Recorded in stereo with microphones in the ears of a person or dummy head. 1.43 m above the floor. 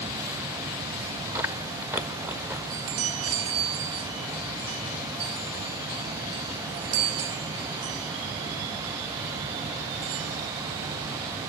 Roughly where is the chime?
Right.